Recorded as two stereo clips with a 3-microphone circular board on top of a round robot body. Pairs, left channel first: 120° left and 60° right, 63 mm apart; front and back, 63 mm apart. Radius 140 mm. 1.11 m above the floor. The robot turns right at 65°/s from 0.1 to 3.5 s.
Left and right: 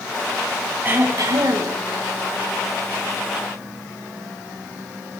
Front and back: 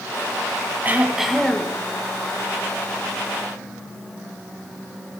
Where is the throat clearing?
120° right, 1.3 m; by 1.8 s 60° right, 1.3 m.